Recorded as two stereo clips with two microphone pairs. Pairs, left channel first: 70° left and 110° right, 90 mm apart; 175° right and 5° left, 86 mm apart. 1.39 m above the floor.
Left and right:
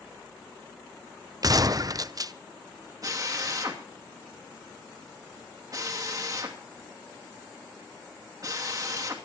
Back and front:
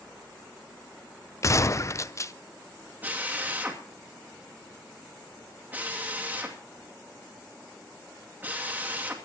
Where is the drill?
65° right, 2.5 m.